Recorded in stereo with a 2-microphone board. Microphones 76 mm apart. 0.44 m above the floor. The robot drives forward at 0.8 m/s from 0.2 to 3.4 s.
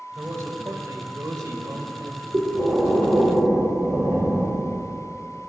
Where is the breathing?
40° right (ahead or behind), 1.7 m; by 4.7 s 30° right (ahead or behind), 2 m.